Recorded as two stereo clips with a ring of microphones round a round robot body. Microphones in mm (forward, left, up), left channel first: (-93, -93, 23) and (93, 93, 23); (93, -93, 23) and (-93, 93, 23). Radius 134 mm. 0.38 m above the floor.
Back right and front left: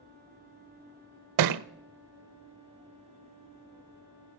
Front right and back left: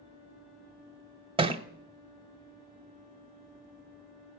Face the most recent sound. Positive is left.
turn(degrees=65)